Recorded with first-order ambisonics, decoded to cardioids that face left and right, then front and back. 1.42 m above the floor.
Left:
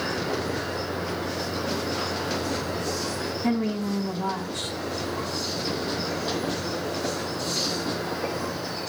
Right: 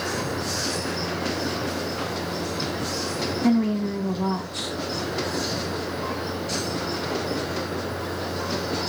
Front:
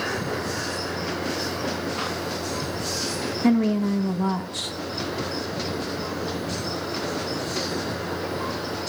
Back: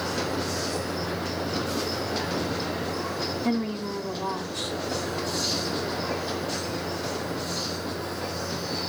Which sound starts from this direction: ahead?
A woman speaking, at 3.4 s.